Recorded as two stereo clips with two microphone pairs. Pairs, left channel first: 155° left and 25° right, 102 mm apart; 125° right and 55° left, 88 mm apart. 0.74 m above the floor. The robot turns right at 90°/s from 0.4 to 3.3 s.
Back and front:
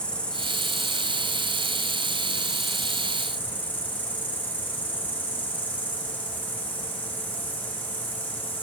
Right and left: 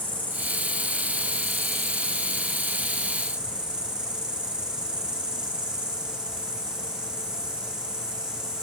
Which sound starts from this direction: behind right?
An insect, at 0.0 s.